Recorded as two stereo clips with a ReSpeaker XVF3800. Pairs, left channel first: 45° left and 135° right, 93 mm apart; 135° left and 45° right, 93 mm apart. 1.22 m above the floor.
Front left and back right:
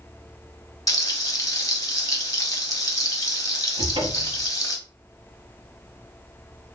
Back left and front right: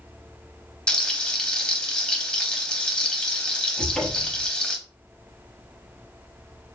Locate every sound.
0.9 s frying: 60° left, 0.8 m
3.8 s a cupboard door: 140° right, 0.8 m